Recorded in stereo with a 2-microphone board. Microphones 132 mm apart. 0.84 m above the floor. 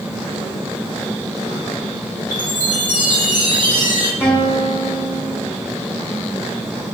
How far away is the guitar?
About 2 m.